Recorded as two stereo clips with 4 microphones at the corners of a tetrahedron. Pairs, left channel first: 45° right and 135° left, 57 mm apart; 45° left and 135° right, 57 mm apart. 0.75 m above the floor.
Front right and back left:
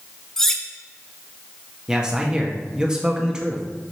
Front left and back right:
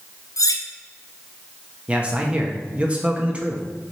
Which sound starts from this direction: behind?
A man speaking, at 1.9 s.